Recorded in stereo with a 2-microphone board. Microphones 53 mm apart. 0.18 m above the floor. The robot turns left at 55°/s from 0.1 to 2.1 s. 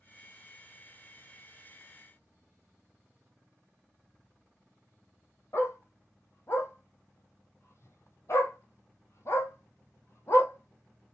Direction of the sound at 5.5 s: 55° left (ahead or behind).